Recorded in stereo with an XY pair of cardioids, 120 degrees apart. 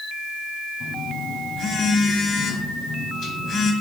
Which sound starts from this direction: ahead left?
A phone buzzing, at 0.8 s.